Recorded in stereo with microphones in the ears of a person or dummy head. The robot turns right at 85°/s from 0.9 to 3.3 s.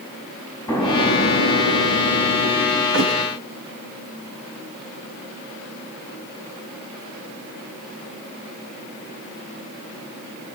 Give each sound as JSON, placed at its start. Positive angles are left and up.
{"t": 0.7, "sound": "an explosion", "azimuth_deg": 20, "distance_m": 7.0}
{"t": 2.9, "sound": "a thud", "side_deg": -70, "distance_m": 3.5}